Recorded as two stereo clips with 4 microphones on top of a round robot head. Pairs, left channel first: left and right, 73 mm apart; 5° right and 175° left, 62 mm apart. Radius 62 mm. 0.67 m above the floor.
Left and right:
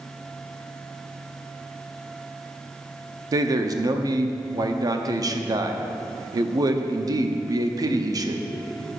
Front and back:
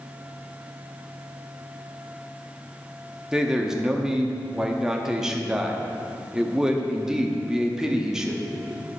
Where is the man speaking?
105° right, 0.8 m.